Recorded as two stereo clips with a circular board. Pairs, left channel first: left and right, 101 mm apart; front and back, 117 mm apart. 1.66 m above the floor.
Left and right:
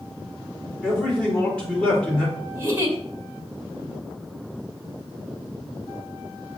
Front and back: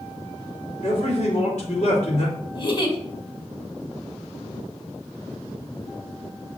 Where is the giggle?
30° right, 2 m.